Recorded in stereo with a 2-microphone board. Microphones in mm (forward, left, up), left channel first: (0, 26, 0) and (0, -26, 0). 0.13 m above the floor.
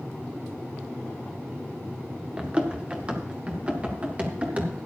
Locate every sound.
2.4 s running footsteps: 20° right (ahead or behind), 2 m; by 4.7 s 30° right (ahead or behind), 3.5 m